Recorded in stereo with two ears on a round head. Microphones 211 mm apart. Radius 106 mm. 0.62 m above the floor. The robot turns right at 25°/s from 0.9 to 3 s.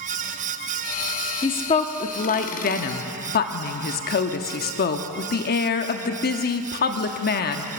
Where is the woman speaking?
30° left, 0.9 m; by 7.7 s 70° left, 0.9 m.